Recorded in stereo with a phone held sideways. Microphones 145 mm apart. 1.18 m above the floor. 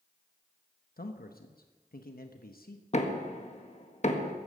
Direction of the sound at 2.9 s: 50° left (ahead or behind).